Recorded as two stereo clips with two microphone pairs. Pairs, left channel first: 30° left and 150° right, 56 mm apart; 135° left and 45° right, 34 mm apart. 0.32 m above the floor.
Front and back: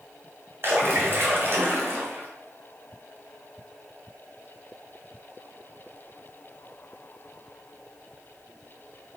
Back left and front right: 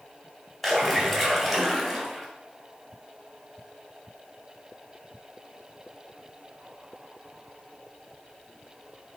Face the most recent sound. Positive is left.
turn(degrees=-130)